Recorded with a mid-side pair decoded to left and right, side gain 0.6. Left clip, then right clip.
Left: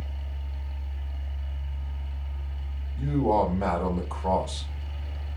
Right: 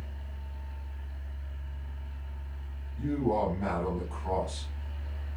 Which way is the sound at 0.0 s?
60° left.